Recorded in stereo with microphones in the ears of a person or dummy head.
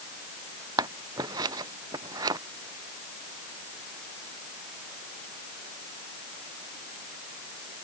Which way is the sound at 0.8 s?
20° right (ahead or behind).